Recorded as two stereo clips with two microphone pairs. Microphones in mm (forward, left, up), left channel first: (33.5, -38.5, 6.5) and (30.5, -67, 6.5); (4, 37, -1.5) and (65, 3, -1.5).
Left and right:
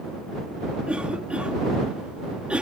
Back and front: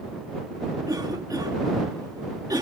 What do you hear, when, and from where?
0.9 s a cough: 45° right